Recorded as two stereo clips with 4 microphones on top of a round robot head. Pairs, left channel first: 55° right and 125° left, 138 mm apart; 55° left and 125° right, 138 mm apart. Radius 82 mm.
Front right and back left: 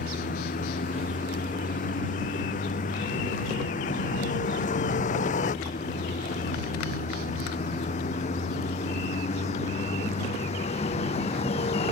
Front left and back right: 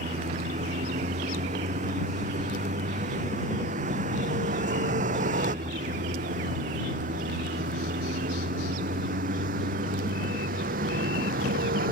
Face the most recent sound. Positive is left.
turn(degrees=-105)